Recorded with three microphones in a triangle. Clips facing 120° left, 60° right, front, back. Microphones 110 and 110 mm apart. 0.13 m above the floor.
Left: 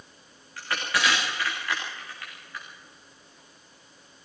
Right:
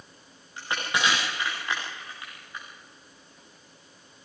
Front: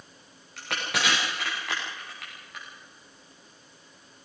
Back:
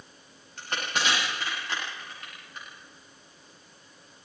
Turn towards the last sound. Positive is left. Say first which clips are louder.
# even, even
turn(degrees=10)